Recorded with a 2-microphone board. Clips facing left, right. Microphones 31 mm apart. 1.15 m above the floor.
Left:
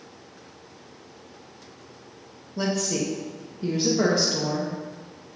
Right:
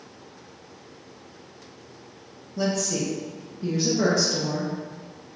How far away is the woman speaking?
About 0.6 m.